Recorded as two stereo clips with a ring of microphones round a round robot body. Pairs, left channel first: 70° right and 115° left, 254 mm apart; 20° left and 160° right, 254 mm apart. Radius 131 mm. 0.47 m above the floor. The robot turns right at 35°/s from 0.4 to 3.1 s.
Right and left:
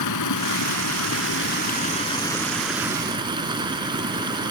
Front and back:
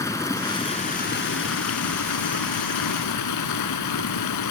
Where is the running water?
55° right; by 4.5 s 40° left.